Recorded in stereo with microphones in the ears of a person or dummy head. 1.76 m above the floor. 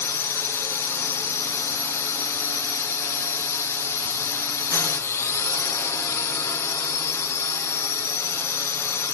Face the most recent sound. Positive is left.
turn(degrees=15)  # may be behind; listen again after turning